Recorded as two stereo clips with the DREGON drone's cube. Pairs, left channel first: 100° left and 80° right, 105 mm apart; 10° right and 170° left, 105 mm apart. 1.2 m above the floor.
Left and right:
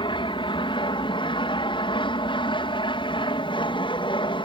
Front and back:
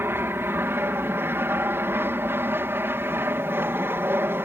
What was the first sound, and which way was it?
An aircraft, 105° left.